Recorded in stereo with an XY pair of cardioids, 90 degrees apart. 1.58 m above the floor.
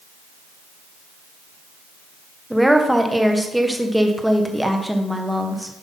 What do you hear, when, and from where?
2.5 s a woman speaking: 5° right, 1.3 m